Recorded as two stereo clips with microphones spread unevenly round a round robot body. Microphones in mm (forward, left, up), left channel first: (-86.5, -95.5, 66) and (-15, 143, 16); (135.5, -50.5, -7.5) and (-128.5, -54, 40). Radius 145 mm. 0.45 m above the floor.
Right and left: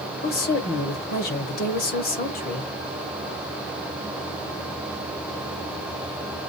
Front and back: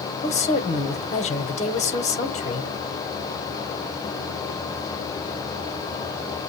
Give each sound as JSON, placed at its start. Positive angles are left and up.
{"t": 0.2, "sound": "a woman speaking", "azimuth_deg": -50, "distance_m": 1.3}